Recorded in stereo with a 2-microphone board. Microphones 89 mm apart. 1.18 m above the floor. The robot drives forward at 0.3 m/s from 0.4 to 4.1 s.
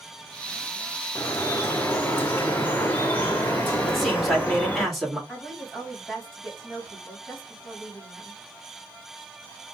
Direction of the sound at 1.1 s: 25° left (ahead or behind).